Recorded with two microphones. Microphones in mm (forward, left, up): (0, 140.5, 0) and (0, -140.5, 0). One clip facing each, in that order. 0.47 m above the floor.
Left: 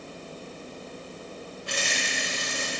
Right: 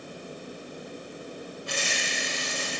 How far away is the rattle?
About 5 m.